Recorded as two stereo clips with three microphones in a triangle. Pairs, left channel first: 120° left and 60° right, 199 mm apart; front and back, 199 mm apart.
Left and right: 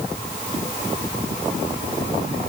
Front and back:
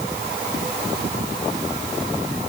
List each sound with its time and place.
Only background noise.